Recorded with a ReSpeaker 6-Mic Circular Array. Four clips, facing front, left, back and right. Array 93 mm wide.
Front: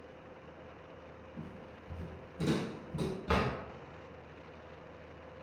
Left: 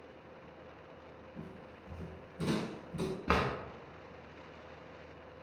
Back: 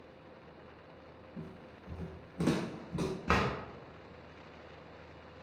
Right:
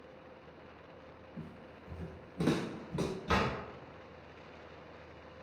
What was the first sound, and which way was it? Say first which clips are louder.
Footsteps: right 1 dB, even; 130° left.